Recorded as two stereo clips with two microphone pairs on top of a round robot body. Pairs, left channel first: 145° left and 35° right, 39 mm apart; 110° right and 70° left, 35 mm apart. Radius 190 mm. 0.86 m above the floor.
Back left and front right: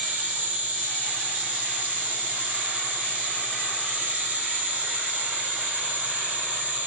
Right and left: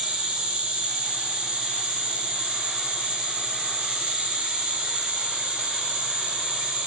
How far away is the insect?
About 3 m.